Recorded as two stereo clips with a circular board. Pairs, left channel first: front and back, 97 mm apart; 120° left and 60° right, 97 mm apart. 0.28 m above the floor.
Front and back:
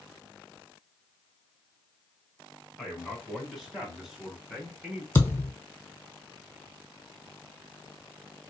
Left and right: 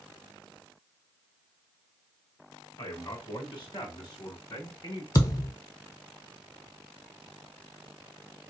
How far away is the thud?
About 0.7 m.